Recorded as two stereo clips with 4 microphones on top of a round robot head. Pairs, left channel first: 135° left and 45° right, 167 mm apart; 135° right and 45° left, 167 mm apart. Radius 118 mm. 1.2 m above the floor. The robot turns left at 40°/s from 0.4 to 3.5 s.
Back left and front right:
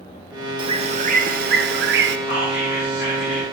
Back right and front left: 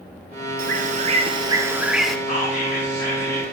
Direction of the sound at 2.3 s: 170° right.